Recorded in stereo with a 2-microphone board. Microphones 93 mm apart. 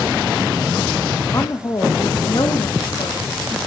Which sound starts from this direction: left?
A woman speaking, at 1.3 s.